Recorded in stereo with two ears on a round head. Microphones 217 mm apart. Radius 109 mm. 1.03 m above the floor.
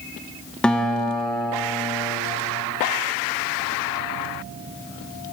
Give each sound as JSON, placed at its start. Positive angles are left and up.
{"t": 0.6, "sound": "a guitar", "side_deg": 5, "distance_m": 0.9}